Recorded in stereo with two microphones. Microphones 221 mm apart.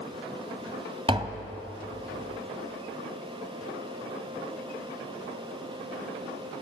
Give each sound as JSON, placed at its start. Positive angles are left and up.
{"t": 1.1, "sound": "tapping", "side_deg": -25, "distance_m": 2.0}